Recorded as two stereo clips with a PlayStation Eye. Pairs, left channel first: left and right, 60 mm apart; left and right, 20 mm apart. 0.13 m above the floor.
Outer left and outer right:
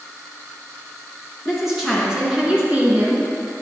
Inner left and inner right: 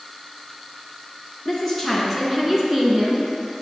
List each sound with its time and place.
1.4 s a woman speaking: centre (ahead or behind), 2.0 m; by 3.3 s 35° right (ahead or behind), 1.9 m